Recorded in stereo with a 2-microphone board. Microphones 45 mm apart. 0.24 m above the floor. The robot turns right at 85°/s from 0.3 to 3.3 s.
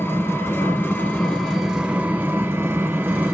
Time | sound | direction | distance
0.0 | an engine running | 70° left | 0.9 m